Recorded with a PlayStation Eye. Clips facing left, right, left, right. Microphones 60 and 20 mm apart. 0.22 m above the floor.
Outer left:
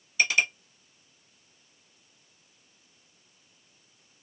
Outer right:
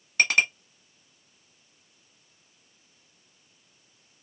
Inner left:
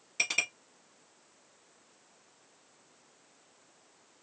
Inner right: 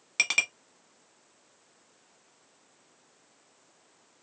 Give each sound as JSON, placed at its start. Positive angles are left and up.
{"t": 0.2, "sound": "a clink", "side_deg": -50, "distance_m": 1.0}